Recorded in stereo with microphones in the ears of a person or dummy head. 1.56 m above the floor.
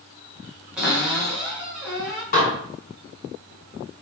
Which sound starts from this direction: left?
Dishes clattering, at 2.3 s.